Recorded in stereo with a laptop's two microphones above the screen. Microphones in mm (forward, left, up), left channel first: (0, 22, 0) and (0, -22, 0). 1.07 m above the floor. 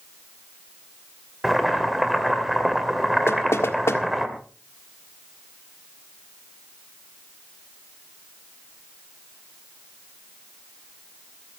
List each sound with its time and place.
1.4 s boiling: 5° right (ahead or behind), 2 m
3.3 s knocking: 75° left (ahead or behind), 1.5 m